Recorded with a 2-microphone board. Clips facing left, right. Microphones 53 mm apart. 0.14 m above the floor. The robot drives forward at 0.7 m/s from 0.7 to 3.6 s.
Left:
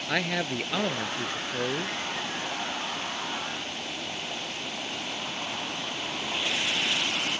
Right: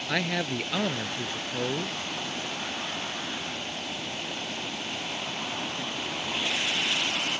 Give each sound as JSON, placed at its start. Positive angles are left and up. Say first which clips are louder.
{"t": 0.1, "sound": "a man speaking", "louder": "even", "side_deg": 5}